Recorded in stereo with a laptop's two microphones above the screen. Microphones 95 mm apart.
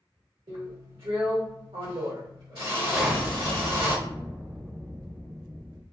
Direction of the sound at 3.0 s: 5° right (ahead or behind).